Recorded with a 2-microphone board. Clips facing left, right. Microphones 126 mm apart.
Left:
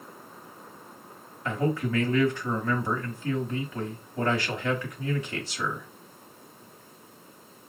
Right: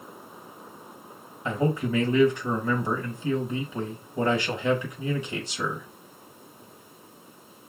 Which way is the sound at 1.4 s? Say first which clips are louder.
Right 2 dB; 20° right (ahead or behind).